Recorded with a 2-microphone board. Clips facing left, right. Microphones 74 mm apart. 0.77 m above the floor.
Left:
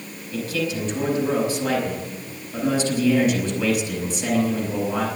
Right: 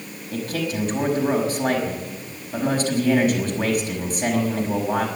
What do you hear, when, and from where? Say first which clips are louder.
0.3 s a man speaking: even; 50° right (ahead or behind), 5 m